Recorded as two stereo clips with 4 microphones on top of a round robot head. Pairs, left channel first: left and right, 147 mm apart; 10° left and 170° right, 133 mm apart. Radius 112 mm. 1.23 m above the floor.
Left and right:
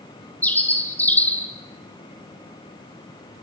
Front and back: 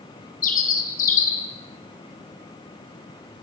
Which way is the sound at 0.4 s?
10° left.